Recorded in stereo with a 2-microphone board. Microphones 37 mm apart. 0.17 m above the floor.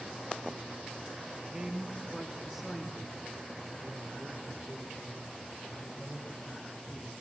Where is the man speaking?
10° right (ahead or behind), 1.5 m; by 7.1 s 35° left (ahead or behind), 5 m.